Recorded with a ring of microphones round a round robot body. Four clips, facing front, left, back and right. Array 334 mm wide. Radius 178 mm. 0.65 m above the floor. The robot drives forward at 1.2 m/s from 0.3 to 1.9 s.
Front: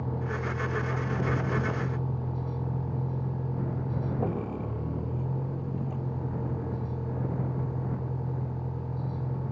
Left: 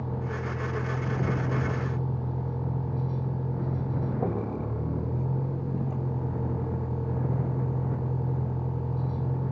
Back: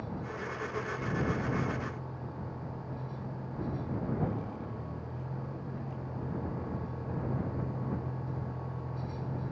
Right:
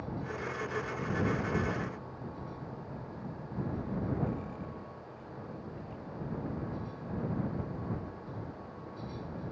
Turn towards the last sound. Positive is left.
turn(degrees=75)